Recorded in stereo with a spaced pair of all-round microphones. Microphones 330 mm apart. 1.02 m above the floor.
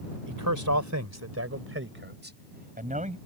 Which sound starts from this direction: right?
A man speaking, at 0.3 s.